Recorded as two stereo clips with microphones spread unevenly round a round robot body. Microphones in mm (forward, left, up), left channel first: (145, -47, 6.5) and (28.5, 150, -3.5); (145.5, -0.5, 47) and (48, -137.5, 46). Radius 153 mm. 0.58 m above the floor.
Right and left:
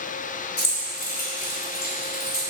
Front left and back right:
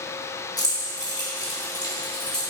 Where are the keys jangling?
15° right, 2.5 m; by 2.4 s 10° right, 3.5 m.